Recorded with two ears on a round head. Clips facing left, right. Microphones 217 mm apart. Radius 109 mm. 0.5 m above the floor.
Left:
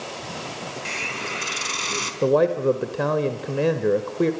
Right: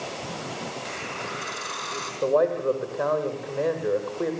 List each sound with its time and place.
0.8 s a hiss: 45° left (ahead or behind), 4 m
2.2 s a man speaking: 45° left (ahead or behind), 1.6 m